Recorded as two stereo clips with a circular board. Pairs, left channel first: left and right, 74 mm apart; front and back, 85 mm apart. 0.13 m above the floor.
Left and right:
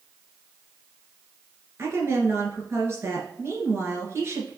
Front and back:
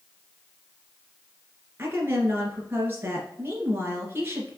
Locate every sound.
1.8 s a woman speaking: 125° right, 2 m